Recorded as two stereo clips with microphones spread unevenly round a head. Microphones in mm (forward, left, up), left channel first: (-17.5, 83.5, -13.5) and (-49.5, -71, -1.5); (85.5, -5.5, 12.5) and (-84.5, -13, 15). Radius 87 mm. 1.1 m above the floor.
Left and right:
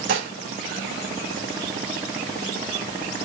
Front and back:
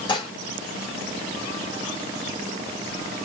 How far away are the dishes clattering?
About 0.9 m.